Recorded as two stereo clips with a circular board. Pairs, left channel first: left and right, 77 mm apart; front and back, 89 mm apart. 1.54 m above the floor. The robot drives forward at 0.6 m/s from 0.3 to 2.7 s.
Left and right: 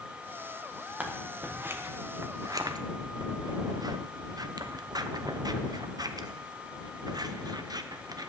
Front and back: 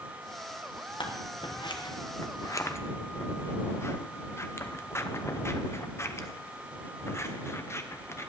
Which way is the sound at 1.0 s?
20° right.